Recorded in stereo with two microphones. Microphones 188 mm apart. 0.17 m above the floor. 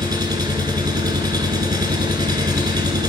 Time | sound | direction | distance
0.0 | an engine running | 20° right (ahead or behind) | 0.7 m